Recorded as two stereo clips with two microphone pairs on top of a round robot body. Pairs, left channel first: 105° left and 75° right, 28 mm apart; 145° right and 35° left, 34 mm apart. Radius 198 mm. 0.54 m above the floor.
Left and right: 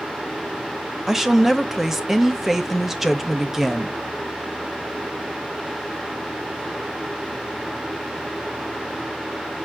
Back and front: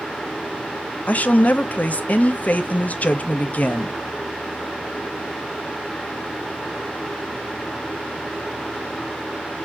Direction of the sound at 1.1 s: 165° right.